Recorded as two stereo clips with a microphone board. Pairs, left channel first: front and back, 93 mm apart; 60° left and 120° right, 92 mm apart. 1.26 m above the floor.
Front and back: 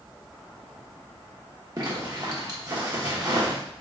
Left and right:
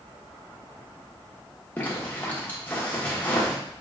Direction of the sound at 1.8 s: 130° left.